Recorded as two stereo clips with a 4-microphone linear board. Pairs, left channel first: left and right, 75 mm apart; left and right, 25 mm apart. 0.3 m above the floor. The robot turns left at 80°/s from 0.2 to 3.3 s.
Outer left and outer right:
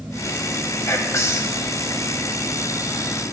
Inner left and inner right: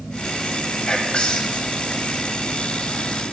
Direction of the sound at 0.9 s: 120° left.